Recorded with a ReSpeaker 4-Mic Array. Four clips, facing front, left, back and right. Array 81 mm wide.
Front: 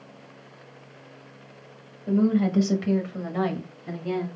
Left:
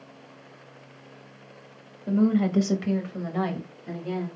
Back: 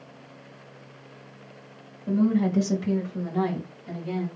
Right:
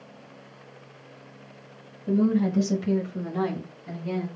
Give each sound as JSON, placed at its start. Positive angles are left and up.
{"t": 2.1, "sound": "a woman speaking", "azimuth_deg": 75, "distance_m": 2.0}